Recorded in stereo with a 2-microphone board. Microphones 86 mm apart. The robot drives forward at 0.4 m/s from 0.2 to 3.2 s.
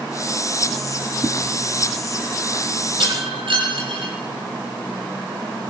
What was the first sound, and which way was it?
A whoosh, 35° right (ahead or behind).